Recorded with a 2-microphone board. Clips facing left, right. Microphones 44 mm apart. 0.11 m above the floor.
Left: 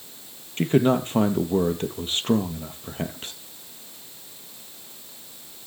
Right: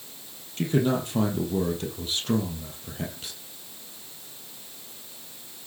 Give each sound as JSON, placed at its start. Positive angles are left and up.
{"t": 0.6, "sound": "a man speaking", "side_deg": 35, "distance_m": 2.5}